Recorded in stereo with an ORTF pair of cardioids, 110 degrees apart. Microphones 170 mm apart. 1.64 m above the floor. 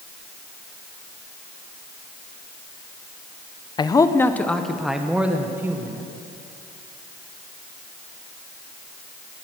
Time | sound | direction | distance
3.8 | a man speaking | 25° left | 0.9 m